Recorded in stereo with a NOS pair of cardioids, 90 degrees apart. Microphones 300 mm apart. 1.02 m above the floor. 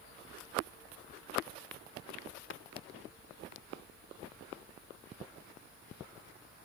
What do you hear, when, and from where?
2.5 s tapping: 40° left